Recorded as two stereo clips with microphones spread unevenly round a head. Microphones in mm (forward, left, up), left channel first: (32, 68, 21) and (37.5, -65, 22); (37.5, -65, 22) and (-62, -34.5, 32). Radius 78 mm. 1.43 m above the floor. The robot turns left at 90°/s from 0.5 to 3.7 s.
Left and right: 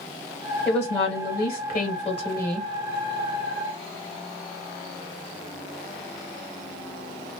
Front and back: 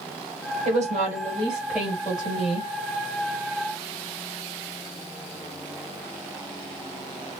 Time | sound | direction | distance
0.7 | a woman speaking | straight behind | 1.5 m